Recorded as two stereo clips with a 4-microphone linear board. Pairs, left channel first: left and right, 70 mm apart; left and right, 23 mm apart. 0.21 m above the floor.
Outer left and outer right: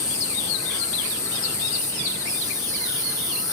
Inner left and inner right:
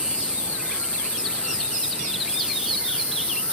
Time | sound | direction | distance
0.0 | an insect | 65° right (ahead or behind) | 8.5 m